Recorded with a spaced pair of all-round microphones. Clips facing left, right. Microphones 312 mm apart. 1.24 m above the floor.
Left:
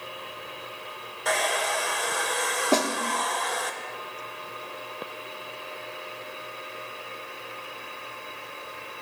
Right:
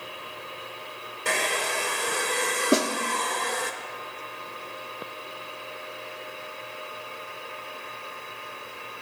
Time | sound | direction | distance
1.2 | a hair dryer | 35° right (ahead or behind) | 0.7 m
2.7 | a snare drum | 15° right (ahead or behind) | 0.8 m